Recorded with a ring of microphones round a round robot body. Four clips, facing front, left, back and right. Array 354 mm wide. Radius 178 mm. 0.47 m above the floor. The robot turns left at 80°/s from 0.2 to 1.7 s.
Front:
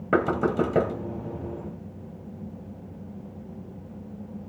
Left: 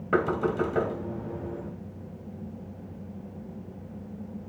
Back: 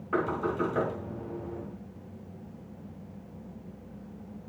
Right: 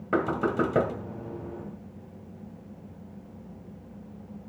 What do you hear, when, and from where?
0.1 s knocking: 5° left, 2 m; by 0.9 s 50° right, 2 m